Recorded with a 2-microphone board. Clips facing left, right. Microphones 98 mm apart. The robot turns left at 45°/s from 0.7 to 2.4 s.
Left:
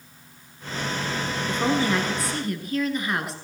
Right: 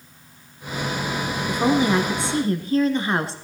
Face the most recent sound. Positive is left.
turn(degrees=-55)